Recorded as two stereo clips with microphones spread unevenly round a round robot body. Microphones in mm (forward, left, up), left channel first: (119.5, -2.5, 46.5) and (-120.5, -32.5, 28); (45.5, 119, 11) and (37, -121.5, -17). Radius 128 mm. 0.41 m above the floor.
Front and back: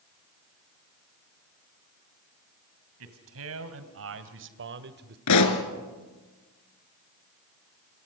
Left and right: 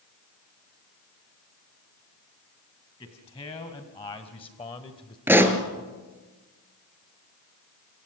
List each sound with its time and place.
3.0 s a man speaking: 160° left, 3 m
5.3 s a pop: 10° right, 2 m